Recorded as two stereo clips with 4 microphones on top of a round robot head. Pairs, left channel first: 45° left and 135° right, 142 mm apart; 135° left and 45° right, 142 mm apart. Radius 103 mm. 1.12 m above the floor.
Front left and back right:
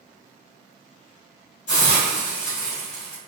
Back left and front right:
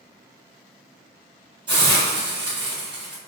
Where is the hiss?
10° left, 1.5 m.